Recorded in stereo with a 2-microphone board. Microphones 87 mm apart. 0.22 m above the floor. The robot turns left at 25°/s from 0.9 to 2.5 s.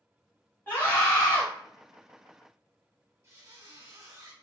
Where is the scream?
25° left (ahead or behind), 1.1 m; by 1.4 s 20° left (ahead or behind), 1.1 m.